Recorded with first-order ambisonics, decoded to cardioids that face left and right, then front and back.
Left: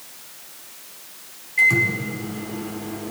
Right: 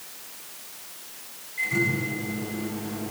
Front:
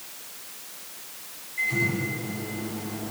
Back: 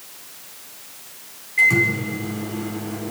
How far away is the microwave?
About 4 m.